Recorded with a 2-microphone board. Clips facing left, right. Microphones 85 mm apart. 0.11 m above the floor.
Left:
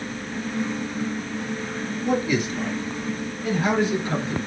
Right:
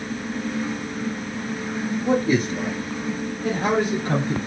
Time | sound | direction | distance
2.0 | a man speaking | 30° right (ahead or behind) | 1.5 m